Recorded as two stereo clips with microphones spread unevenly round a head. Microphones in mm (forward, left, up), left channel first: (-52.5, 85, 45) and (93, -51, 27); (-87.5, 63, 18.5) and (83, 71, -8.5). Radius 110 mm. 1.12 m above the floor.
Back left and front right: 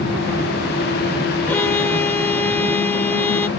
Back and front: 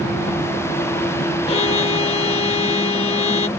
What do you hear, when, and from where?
1.5 s a violin: 150° right